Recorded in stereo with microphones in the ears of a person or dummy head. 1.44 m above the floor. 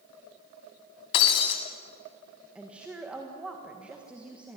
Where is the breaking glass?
30° left (ahead or behind), 1.5 m.